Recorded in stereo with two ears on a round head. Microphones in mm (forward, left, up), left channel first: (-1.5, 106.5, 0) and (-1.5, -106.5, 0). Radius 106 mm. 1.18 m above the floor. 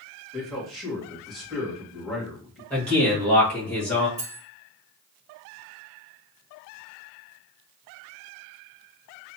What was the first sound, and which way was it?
A man speaking, centre (ahead or behind).